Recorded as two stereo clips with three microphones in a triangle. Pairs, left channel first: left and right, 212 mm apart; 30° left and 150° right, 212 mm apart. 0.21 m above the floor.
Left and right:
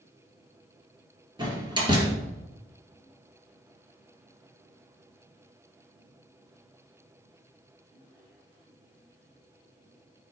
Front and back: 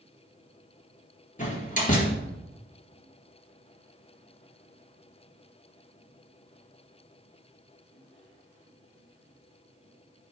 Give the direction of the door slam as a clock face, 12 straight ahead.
1 o'clock.